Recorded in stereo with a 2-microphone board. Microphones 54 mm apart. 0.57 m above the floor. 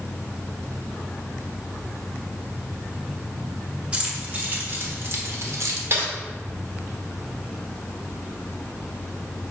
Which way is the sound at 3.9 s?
20° right (ahead or behind).